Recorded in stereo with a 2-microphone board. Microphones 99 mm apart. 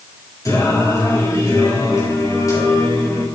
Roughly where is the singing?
Left.